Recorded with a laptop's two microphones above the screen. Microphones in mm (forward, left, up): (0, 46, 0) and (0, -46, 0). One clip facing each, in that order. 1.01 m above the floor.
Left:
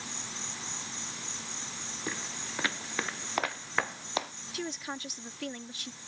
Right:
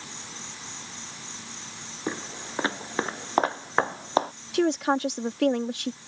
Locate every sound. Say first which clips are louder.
0.0 s an insect: even; centre (ahead or behind)
2.1 s footsteps: right 7 dB; 30° right (ahead or behind); by 4.3 s 35° right (ahead or behind)
4.5 s a woman speaking: right 15 dB; 70° right (ahead or behind)